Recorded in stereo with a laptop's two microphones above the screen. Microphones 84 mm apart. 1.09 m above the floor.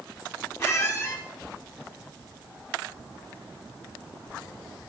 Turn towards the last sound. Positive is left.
turn(degrees=30)  # may be behind; listen again after turning